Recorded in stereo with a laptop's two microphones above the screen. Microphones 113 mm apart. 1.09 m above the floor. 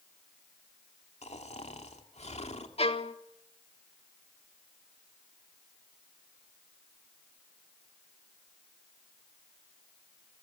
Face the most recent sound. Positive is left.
turn(degrees=65)  # may be behind; listen again after turning